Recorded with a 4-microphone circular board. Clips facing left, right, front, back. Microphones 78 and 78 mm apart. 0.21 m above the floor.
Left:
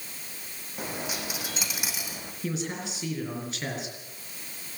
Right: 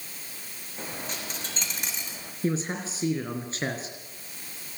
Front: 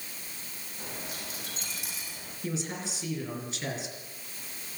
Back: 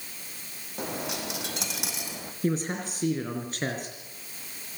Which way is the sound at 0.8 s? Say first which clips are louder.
Left 3 dB, back 9 dB; 170° left.